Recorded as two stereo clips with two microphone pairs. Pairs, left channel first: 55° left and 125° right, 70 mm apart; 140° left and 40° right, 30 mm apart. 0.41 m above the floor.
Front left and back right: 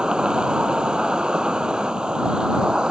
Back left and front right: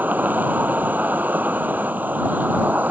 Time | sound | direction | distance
0.0 | an insect | 45° right | ?